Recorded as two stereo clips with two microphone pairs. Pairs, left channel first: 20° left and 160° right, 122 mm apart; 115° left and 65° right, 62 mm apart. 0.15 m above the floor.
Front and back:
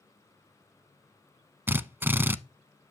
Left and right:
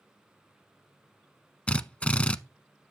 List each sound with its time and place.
1.7 s a drill: 150° left, 0.6 m